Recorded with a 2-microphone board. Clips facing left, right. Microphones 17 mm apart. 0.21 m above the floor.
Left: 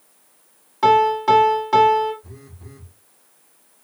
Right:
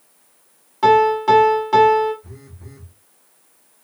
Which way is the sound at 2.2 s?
5° right (ahead or behind).